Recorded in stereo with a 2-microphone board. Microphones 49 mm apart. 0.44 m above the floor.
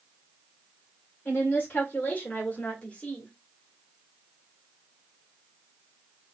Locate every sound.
1.2 s a woman speaking: 35° left (ahead or behind), 1.9 m; by 3.3 s 25° left (ahead or behind), 1.6 m